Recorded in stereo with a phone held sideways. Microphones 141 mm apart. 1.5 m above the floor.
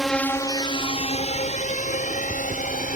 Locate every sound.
0.0 s a drone: centre (ahead or behind); by 3.0 s 70° left (ahead or behind)